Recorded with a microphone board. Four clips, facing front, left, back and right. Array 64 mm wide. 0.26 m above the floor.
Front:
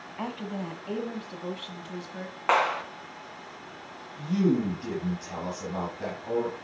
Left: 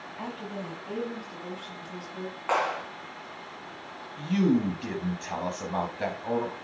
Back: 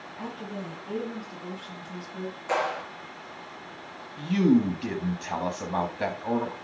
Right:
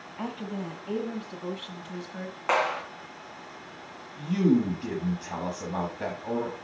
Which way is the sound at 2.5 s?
10° right.